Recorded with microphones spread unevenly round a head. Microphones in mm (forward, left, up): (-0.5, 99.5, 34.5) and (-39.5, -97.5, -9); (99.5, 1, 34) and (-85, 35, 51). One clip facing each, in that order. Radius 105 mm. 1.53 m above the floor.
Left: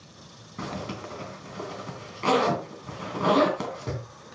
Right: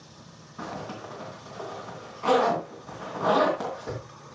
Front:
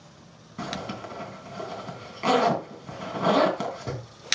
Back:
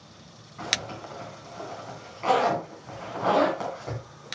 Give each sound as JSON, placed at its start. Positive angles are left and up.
{"t": 0.6, "sound": "a zipper", "azimuth_deg": 35, "distance_m": 3.0}